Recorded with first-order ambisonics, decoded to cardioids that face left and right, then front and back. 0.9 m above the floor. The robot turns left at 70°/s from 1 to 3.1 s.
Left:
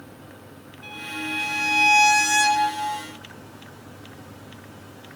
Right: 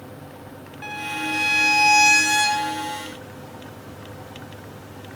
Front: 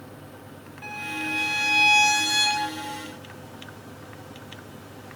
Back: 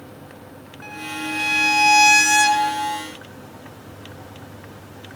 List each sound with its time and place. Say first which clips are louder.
0.8 s a violin: right 4 dB, back 1 dB; 95° right, 1.0 m; by 3.0 s 125° left, 1.0 m